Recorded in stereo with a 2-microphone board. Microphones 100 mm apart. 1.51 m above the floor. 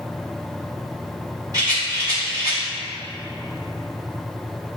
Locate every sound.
1.5 s a rattle: 40° right (ahead or behind), 2 m